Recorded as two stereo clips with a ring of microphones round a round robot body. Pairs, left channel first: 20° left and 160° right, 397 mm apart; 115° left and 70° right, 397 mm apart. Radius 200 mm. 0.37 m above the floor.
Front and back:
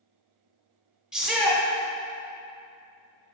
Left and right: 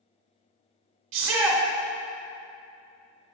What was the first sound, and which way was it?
A shout, 70° right.